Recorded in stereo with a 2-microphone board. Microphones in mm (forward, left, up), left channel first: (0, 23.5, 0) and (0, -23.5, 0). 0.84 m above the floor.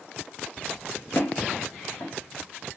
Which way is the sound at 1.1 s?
50° left (ahead or behind).